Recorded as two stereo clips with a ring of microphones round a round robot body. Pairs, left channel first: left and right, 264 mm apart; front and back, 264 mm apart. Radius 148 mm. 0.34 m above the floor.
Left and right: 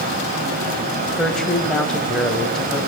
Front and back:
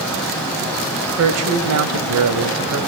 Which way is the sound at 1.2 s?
Straight behind.